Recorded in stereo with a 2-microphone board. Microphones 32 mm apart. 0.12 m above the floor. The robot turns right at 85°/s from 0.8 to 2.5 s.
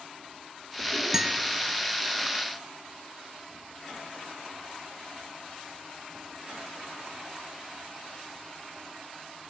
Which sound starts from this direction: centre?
A guitar, at 1.1 s.